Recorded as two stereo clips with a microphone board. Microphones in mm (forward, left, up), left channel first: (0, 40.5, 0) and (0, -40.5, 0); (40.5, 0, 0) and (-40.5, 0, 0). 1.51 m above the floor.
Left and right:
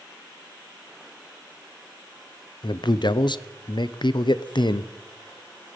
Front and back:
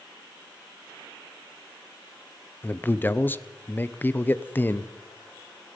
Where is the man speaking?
65° left, 0.6 m.